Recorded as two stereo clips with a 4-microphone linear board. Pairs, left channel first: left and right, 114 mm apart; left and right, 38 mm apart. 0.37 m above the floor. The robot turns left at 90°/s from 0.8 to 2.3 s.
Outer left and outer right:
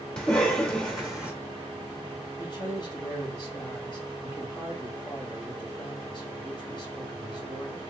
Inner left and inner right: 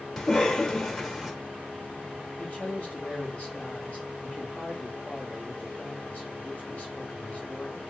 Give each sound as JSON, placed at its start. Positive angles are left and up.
{"t": 0.2, "sound": "a cough", "side_deg": 10, "distance_m": 1.0}
{"t": 2.4, "sound": "a man speaking", "side_deg": 45, "distance_m": 2.0}